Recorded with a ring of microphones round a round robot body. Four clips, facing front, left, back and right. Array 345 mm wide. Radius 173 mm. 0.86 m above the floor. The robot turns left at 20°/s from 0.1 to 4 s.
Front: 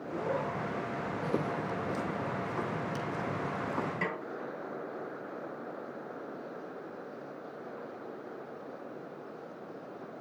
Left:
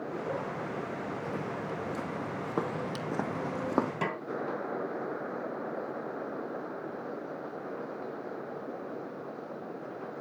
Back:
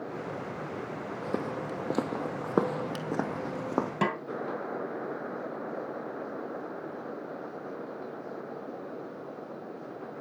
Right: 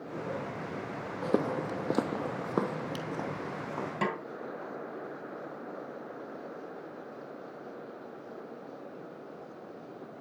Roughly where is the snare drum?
Behind.